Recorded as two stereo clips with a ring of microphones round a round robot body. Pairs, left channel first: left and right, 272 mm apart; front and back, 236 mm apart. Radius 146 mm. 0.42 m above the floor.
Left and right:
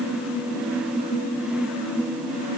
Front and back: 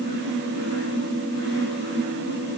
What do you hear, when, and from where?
Only background noise.